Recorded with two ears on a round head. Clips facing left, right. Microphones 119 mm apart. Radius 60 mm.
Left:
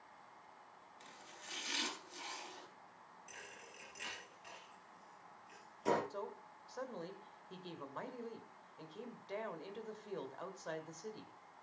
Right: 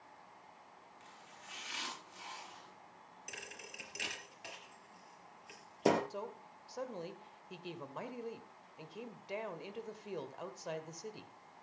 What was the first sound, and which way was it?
Chopping, 40° left (ahead or behind).